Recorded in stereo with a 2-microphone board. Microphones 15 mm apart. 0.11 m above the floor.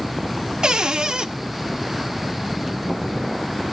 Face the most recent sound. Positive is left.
turn(degrees=-50)  # may be behind; listen again after turning